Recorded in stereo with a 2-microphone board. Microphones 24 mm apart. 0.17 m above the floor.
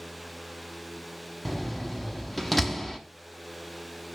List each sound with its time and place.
1.4 s a door slam: 5° left (ahead or behind), 0.8 m